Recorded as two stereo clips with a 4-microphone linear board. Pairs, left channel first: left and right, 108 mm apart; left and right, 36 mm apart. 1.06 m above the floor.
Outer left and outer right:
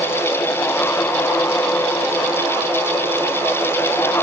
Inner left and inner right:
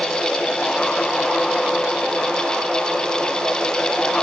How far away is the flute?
No flute in this recording.